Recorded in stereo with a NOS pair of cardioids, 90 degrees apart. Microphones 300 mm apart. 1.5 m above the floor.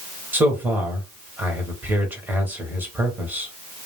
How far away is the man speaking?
About 1.4 m.